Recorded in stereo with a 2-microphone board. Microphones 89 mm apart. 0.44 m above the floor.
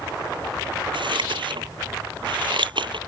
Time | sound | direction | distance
0.9 | scissors | 75° right (ahead or behind) | ?